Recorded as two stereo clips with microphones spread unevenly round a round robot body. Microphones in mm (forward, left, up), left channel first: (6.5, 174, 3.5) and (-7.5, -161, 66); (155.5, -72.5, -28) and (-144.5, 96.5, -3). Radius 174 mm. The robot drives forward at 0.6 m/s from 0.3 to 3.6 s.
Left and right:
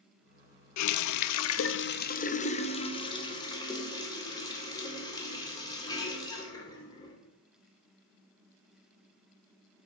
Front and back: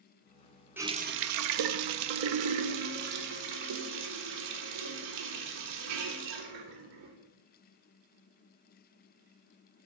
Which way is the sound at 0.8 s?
65° left.